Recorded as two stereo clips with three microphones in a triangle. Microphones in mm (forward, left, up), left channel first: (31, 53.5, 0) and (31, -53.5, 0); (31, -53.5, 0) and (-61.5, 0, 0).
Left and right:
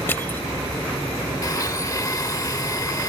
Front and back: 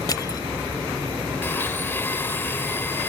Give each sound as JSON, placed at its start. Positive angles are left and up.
{"t": 0.1, "sound": "crushing", "azimuth_deg": 20}
{"t": 1.4, "sound": "a blender", "azimuth_deg": 35}